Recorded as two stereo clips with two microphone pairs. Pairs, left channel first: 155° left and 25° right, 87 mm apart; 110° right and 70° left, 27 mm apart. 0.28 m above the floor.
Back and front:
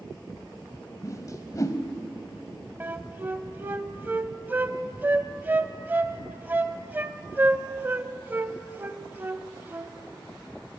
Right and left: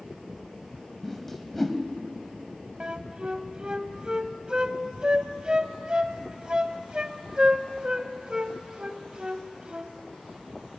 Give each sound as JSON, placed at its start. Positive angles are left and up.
{"t": 1.0, "sound": "a whoosh", "azimuth_deg": 165, "distance_m": 1.7}
{"t": 2.8, "sound": "a flute", "azimuth_deg": 30, "distance_m": 1.0}